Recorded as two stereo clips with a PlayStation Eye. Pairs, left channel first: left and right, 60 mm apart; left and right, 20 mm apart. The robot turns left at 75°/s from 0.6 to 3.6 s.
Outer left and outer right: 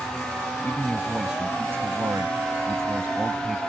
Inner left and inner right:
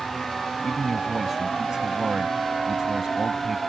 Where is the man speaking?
40° left; by 3.6 s 175° left.